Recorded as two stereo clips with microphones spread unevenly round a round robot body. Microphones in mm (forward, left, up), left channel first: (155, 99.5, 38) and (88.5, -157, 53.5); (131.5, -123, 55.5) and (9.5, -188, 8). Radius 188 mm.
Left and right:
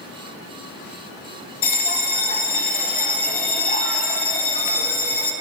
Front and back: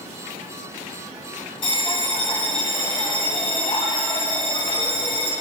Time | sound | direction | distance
1.6 | a bell | 25° left | 0.7 m